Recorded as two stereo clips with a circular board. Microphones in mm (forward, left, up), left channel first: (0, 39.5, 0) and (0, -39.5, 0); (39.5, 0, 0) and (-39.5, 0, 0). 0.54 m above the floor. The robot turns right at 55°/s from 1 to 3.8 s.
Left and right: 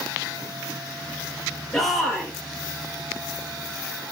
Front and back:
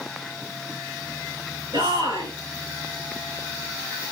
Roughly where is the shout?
Behind.